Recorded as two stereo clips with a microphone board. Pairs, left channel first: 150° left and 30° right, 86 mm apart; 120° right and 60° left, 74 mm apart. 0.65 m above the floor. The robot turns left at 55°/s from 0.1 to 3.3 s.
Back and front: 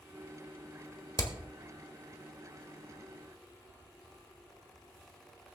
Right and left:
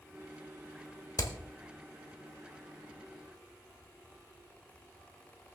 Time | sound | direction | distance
1.2 | hammering | 165° right | 1.4 m